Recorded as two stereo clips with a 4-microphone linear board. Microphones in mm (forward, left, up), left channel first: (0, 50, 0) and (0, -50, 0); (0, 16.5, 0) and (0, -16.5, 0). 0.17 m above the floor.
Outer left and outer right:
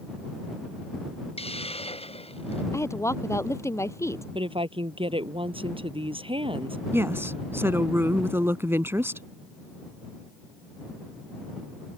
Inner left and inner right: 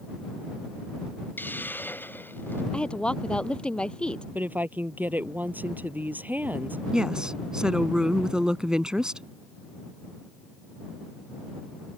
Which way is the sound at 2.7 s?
30° left (ahead or behind).